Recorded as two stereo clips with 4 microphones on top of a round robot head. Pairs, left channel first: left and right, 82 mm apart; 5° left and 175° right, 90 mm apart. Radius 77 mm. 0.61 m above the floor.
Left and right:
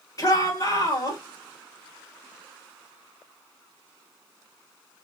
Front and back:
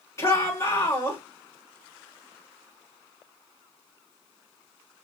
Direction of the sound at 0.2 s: 55° left.